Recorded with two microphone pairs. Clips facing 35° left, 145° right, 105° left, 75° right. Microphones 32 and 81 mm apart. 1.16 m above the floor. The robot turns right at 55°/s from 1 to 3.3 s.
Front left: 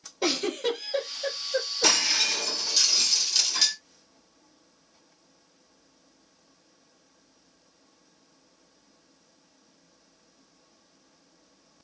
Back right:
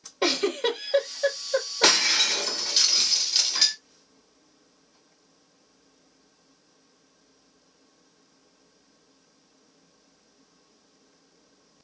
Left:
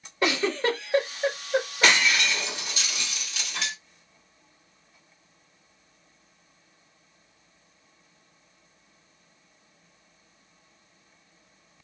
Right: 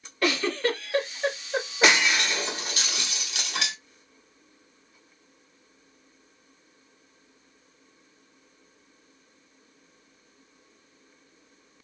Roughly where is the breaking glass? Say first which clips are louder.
Back right 4 dB, right 3 dB; behind right.